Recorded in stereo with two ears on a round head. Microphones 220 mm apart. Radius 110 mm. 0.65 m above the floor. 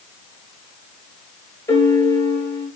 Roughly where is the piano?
Centre.